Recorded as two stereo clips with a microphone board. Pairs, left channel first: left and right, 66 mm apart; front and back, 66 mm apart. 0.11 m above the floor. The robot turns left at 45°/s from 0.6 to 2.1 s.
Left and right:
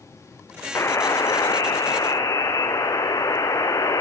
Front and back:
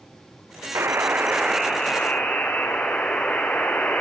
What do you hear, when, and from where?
0.8 s a buzzer: 135° left, 1.2 m; by 4.0 s 75° left, 1.2 m